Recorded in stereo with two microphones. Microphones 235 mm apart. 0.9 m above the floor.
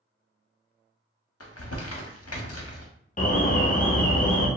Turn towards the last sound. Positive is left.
turn(degrees=35)  # may be behind; listen again after turning